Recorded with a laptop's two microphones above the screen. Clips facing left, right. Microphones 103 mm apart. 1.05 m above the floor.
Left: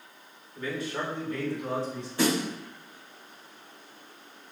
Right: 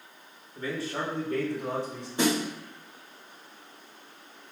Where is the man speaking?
30° right (ahead or behind), 2 m; by 2.1 s 70° right (ahead or behind), 2.5 m.